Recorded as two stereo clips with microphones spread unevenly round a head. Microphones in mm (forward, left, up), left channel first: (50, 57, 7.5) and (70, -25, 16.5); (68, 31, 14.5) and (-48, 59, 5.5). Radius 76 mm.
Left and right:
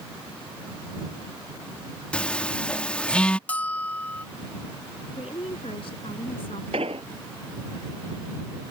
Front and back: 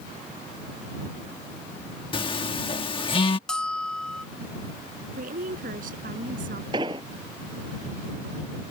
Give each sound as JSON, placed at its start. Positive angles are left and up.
{"t": 2.1, "sound": "a phone buzzing", "azimuth_deg": 25}
{"t": 3.5, "sound": "a bell", "azimuth_deg": 45}
{"t": 5.2, "sound": "a woman speaking", "azimuth_deg": 160}
{"t": 6.7, "sound": "an explosion", "azimuth_deg": -130}